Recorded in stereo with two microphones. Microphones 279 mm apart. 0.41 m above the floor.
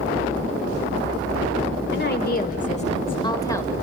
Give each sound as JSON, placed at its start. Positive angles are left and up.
{"t": 1.9, "sound": "a woman speaking", "side_deg": 40, "distance_m": 1.5}